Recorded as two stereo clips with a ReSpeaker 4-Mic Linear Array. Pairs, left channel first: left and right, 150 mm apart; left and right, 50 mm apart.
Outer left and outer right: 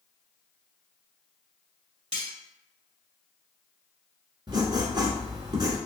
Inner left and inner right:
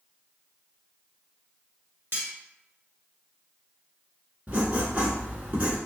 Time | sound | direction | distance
2.1 | cutlery clinking | 50° right (ahead or behind) | 1.3 m
4.5 | writing | 35° right (ahead or behind) | 1.0 m